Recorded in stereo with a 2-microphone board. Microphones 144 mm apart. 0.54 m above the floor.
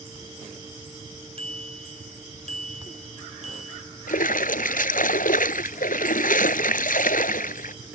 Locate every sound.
1.4 s a bicycle bell: 45° right (ahead or behind); by 3.8 s 55° right (ahead or behind)
4.1 s a splash: 75° left (ahead or behind)